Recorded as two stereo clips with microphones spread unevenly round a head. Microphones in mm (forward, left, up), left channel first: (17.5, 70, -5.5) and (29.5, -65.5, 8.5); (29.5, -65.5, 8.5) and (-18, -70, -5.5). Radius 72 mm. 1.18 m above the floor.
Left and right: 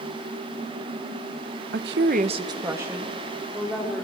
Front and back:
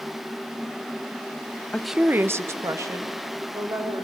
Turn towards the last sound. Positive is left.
turn(degrees=-170)